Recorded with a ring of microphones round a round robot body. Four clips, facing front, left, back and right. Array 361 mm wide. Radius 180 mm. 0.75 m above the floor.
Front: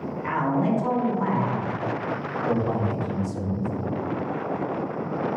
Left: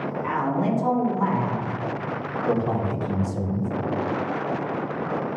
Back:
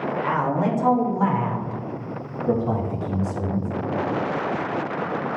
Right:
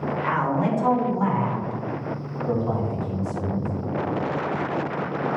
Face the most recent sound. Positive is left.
turn(degrees=115)